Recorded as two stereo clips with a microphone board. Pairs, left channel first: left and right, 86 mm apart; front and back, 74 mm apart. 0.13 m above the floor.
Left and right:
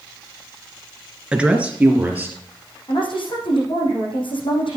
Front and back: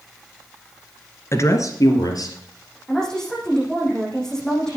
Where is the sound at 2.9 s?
85° left, 6 m.